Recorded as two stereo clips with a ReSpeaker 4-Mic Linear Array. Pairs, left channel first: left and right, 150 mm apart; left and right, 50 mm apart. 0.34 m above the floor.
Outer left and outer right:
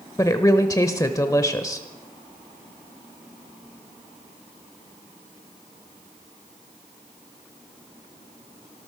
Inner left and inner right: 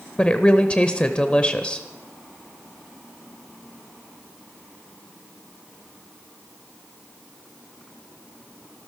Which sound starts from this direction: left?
A woman speaking, at 0.2 s.